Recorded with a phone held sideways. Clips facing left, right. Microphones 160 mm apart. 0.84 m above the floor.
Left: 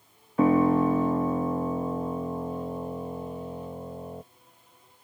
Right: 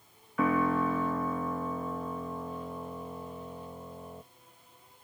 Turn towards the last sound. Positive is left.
turn(degrees=30)  # may be behind; listen again after turning